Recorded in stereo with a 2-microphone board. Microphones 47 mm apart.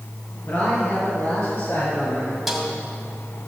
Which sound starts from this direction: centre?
A snare drum, at 2.5 s.